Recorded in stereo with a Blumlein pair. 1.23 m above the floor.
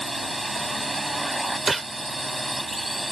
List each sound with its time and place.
0.0 s a drone: 5° right
1.7 s a gunshot: 10° right